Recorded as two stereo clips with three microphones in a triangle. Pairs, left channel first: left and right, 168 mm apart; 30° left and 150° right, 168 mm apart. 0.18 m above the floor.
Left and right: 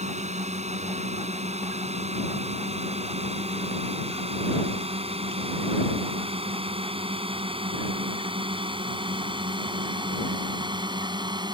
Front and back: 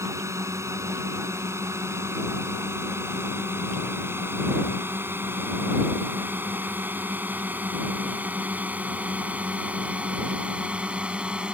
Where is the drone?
85° right; by 11.5 s 75° right.